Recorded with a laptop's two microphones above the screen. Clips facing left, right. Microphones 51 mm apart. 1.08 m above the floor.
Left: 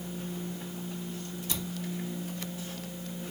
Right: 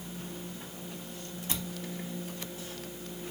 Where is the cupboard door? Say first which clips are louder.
Even; 30° right (ahead or behind), 1.5 m.